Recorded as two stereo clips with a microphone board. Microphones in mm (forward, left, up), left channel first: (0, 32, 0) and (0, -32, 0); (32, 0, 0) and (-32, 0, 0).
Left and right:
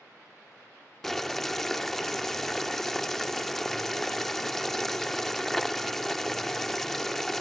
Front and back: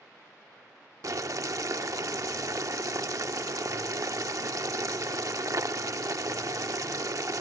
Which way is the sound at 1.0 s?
175° left.